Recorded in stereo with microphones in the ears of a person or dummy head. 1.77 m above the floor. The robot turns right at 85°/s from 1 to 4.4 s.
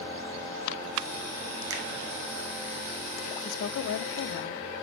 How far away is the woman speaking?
About 0.5 m.